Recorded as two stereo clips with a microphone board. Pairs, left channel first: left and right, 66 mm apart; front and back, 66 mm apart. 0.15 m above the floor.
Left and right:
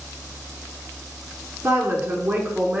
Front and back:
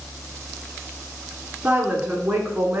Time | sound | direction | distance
1.6 | a woman speaking | 115° right | 1.7 m